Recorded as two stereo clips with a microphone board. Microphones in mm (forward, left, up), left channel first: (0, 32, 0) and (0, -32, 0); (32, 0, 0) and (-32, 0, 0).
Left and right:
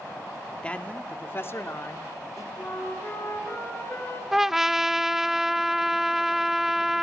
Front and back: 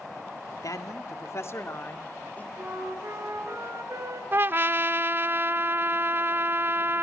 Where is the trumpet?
170° right, 0.6 m.